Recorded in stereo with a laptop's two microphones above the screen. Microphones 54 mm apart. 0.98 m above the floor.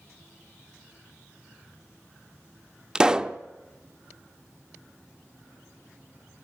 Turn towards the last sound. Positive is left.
turn(degrees=-15)  # may be behind; listen again after turning